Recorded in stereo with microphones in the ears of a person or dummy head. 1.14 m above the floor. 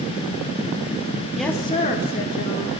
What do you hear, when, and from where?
1.4 s a woman speaking: centre (ahead or behind), 0.9 m; by 2.7 s 70° left (ahead or behind), 1.8 m